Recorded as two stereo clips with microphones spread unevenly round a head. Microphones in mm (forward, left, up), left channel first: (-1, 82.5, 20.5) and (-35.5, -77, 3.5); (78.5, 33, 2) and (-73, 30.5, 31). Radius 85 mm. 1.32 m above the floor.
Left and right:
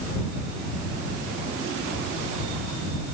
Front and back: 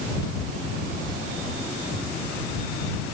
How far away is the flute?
I don't hear a flute.